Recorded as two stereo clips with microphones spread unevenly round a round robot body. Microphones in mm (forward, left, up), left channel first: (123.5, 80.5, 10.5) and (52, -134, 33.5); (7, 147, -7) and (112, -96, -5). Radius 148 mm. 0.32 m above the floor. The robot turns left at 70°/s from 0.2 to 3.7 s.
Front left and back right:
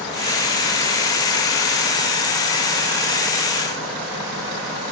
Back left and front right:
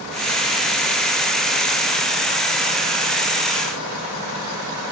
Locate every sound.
Only background noise.